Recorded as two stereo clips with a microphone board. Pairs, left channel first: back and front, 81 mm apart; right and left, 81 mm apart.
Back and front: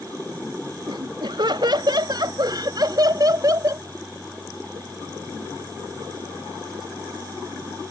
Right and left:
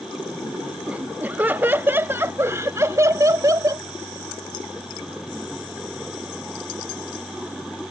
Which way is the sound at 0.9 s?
15° left.